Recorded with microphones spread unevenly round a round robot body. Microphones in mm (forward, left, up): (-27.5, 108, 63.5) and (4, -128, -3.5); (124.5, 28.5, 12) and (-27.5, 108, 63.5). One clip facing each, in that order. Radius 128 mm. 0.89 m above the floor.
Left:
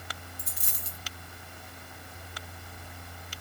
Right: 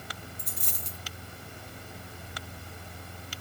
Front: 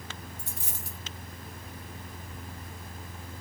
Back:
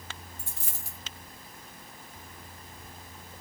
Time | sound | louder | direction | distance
0.4 | a dropped coin | right 3 dB, front 4 dB | 170° left | 1.2 m